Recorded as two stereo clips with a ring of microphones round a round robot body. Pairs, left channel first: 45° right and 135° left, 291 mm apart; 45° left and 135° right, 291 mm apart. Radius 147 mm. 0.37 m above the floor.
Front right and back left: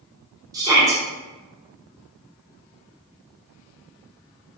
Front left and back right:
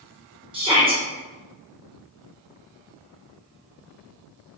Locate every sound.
0.5 s a shout: 170° right, 0.8 m